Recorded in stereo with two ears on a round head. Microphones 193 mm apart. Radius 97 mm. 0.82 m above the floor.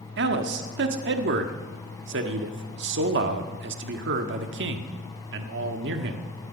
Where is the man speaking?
55° right (ahead or behind), 1.3 m.